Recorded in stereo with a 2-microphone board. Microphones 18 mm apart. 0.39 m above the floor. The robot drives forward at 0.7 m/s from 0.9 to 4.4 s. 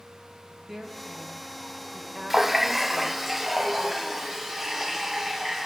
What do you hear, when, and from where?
0.7 s a woman speaking: 10° right (ahead or behind), 2.0 m; by 3.3 s 20° right (ahead or behind), 0.9 m
2.3 s a running tap: 15° right (ahead or behind), 0.5 m; by 5.7 s 5° right (ahead or behind), 1.8 m